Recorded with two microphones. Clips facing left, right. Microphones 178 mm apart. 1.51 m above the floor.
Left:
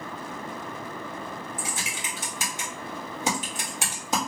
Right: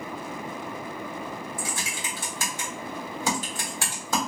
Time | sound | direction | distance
1.6 | typing on a keyboard | 20° left (ahead or behind) | 1.4 m